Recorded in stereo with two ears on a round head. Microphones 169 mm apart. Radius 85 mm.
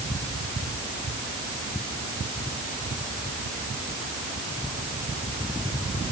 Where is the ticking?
No ticking in this recording.